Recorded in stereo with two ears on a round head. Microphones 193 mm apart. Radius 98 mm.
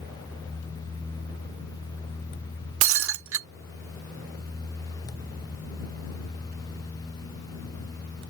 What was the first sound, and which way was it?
Breaking glass, 65° right (ahead or behind).